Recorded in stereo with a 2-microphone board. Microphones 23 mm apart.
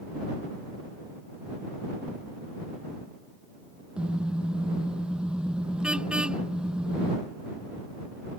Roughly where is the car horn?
Right.